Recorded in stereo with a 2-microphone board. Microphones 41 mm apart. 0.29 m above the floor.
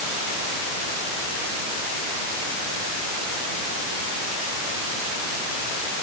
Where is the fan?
I don't hear a fan.